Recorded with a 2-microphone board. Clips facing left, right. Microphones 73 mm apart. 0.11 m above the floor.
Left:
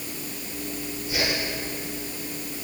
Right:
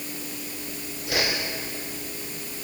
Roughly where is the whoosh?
Right.